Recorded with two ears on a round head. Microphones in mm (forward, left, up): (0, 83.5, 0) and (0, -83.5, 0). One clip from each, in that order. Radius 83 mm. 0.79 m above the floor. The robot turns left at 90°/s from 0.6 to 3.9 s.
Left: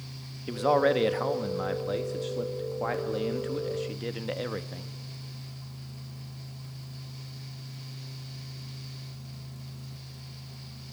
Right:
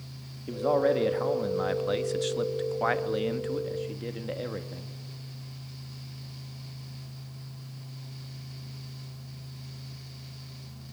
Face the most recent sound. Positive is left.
turn(degrees=145)